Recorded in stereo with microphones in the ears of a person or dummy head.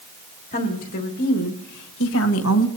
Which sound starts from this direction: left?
A woman speaking, at 0.5 s.